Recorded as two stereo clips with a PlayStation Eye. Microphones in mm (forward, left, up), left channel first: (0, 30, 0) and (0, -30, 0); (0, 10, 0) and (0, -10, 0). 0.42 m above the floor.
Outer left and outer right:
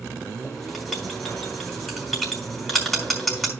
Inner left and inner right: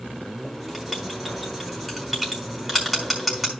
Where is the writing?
Centre (ahead or behind), 4 m.